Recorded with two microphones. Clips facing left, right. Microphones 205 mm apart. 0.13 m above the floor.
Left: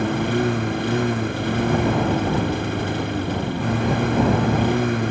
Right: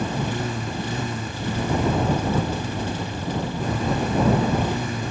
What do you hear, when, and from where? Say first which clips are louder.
0.0 s a lawn mower: left 6 dB; 70° left (ahead or behind)